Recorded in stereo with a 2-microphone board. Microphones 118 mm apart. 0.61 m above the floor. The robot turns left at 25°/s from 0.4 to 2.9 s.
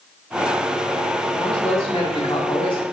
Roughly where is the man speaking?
Behind left.